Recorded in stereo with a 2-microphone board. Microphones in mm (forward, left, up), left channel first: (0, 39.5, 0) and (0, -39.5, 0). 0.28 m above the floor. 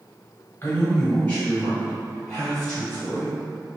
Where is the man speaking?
30° left (ahead or behind), 1.5 m; by 3.3 s centre (ahead or behind), 3.5 m.